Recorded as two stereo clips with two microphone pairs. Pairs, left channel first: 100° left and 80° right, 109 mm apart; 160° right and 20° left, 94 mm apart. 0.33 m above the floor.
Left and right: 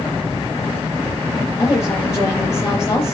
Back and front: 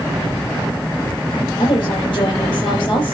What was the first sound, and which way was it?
A woman speaking, 165° left.